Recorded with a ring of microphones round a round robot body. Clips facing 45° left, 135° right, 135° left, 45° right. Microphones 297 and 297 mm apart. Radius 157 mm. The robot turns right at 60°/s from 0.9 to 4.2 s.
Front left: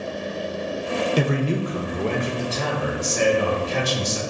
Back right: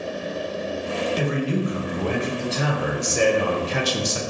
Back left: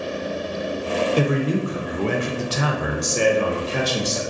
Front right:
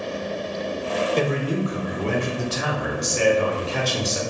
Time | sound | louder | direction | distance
1.2 | a man speaking | front left 1 dB, back left 3 dB | 55° left | 0.6 m